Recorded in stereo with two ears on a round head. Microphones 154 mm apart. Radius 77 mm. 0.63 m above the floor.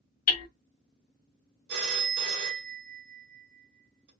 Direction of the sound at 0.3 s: 55° left (ahead or behind).